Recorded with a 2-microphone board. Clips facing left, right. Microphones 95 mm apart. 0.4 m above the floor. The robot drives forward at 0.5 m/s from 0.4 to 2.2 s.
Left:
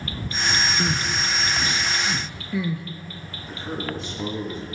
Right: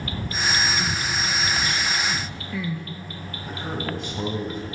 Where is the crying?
45° left (ahead or behind), 0.5 m; by 2.9 s 20° left (ahead or behind), 1.1 m.